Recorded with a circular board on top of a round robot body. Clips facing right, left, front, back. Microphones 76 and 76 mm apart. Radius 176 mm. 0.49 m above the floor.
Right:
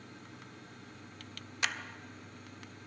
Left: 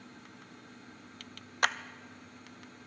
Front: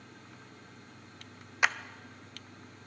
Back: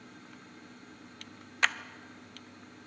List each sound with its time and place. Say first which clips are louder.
1.6 s a clap: left 6 dB, front 1 dB; 75° left, 0.7 m